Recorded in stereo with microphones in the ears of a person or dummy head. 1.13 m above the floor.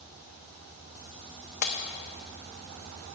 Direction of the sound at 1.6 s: 45° left (ahead or behind).